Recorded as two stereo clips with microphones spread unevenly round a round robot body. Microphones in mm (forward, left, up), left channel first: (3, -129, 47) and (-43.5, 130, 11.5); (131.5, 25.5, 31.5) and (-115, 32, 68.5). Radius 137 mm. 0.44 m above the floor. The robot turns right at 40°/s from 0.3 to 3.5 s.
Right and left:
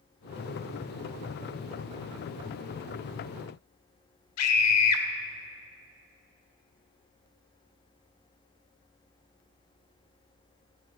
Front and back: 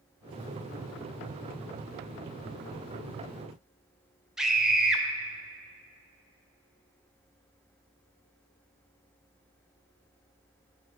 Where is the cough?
I don't hear a cough.